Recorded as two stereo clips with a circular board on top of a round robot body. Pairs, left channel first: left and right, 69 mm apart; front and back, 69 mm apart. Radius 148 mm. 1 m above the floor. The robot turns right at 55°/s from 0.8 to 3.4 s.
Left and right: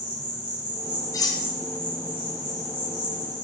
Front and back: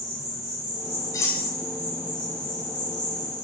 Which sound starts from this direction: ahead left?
Cutlery clinking, at 1.1 s.